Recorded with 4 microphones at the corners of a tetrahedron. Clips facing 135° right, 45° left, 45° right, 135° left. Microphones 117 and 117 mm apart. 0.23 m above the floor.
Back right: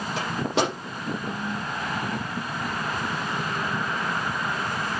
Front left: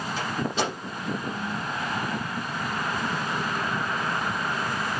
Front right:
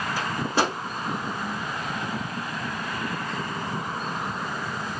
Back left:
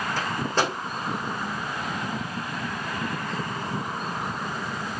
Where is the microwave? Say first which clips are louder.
Back right 3 dB, front right 1 dB; 120° right, 8 m.